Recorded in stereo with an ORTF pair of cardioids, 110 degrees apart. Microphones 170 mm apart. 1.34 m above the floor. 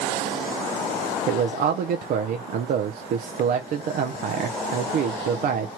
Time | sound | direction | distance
1.3 | a man speaking | 60° right | 0.6 m